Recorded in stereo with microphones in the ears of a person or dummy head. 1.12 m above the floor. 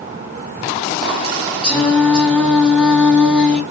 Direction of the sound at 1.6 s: 5° left (ahead or behind).